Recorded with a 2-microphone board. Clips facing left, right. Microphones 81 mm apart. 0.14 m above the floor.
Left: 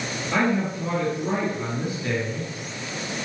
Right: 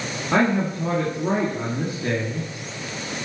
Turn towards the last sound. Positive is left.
turn(degrees=-45)  # may be behind; listen again after turning